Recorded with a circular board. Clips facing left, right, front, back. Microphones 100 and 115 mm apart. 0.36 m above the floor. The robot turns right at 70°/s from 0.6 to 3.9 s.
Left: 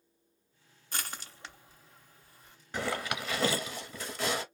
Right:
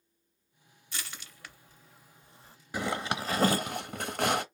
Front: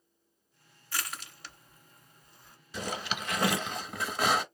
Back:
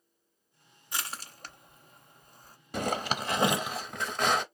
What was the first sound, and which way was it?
Crushing, 110° left.